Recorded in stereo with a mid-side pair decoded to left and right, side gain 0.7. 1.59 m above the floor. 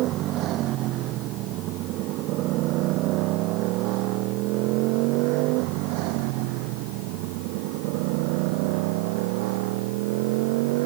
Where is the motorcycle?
55° right; by 10.9 s 75° right.